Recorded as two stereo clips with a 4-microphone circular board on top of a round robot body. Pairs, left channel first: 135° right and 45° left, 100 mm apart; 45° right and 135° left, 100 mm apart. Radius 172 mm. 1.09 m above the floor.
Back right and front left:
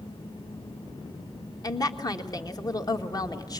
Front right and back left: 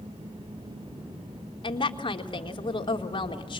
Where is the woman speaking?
85° right, 1.8 m.